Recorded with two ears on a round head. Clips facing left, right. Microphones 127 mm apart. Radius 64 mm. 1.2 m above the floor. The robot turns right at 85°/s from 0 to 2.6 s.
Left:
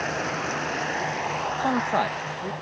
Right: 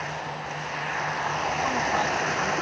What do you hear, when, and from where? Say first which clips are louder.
0.0 s running water: left 5 dB; 55° left; by 2.6 s 80° right
1.6 s a man speaking: left 4 dB; 70° left (ahead or behind); by 2.5 s 15° left (ahead or behind)